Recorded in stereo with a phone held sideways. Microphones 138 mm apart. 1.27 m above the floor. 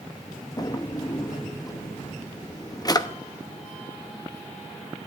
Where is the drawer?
30° left (ahead or behind), 0.7 m.